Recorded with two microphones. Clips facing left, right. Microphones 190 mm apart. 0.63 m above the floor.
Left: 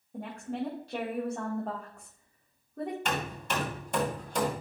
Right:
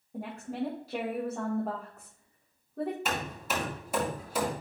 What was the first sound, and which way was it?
A woman speaking, 5° right (ahead or behind).